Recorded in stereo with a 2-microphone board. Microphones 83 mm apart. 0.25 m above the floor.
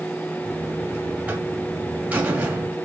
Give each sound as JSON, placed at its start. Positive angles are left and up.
{"t": 0.4, "sound": "a buzzer", "side_deg": -15, "distance_m": 1.4}